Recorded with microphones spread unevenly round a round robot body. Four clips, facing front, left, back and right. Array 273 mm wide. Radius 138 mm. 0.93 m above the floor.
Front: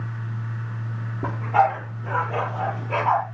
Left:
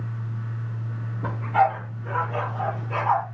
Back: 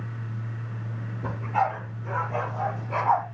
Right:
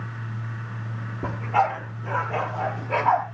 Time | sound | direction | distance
1.2 | a dog barking | 30° right | 6.5 m